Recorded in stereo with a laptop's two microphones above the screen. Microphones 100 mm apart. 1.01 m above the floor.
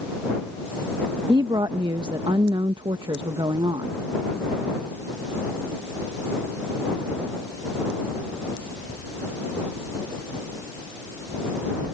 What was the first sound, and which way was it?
A woman speaking, 55° right (ahead or behind).